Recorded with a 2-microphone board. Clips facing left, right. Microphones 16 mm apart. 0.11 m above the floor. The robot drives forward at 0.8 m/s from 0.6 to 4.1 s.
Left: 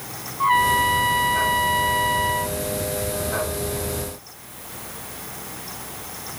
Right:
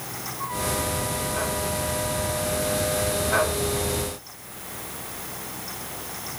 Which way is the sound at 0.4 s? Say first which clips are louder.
Left 11 dB; 65° left (ahead or behind).